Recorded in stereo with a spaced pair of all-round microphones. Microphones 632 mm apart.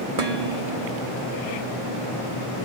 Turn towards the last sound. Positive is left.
turn(degrees=-65)  # may be behind; listen again after turning